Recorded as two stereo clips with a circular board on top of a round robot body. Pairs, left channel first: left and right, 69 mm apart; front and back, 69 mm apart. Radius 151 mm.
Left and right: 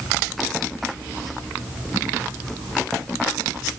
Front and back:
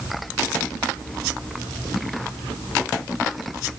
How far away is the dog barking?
I don't hear a dog barking.